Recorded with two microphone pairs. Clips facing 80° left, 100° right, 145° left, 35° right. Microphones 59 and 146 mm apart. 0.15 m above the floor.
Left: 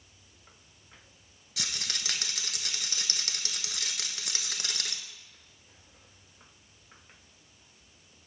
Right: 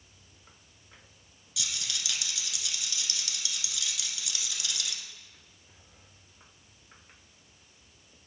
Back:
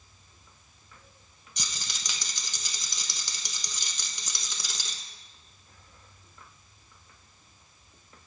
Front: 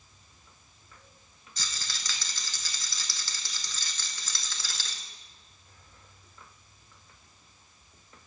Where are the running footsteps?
No running footsteps in this recording.